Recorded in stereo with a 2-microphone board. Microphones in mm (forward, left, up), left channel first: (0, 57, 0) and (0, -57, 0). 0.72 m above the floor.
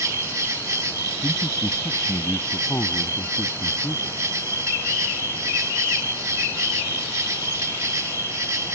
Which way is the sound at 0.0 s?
25° right (ahead or behind).